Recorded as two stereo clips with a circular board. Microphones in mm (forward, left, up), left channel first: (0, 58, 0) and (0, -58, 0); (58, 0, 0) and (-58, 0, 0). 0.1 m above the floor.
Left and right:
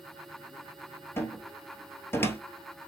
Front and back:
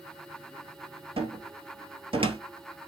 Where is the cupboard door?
155° left, 1.0 m.